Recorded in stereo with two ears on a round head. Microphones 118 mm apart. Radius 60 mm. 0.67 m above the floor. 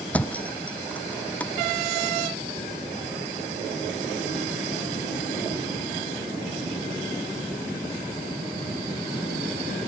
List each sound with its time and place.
0.1 s a thud: 10° left (ahead or behind)